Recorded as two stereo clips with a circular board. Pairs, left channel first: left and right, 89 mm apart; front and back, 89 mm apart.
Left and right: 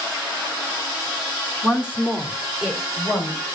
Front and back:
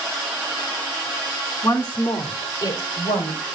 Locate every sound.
1.6 s a woman speaking: 20° right, 1.5 m; by 3.4 s 5° right, 3.5 m